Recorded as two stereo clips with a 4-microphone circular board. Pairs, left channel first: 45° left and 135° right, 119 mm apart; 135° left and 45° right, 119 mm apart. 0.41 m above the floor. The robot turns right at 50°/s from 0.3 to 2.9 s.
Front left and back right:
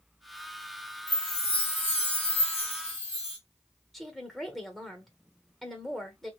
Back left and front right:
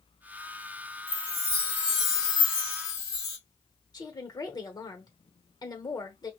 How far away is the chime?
About 1.5 m.